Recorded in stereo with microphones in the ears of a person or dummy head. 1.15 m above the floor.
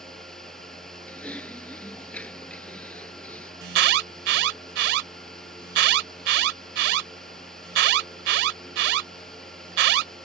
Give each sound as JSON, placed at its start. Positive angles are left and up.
{"t": 0.0, "sound": "a fan", "side_deg": 5}
{"t": 1.1, "sound": "typing on a keyboard", "side_deg": 5}
{"t": 3.6, "sound": "an alarm", "side_deg": -65}